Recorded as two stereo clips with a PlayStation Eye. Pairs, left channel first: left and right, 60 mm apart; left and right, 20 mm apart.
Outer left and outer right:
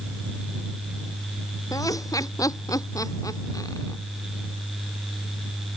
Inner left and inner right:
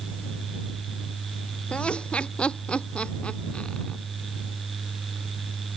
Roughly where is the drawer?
No drawer in this recording.